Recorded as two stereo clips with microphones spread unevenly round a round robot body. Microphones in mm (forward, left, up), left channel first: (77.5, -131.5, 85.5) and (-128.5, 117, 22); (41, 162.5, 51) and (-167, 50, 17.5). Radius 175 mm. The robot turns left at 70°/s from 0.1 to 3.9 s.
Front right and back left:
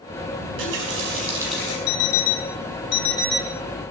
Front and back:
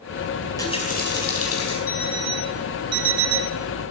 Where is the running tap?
120° left, 4.5 m; by 1.8 s 20° left, 4.5 m.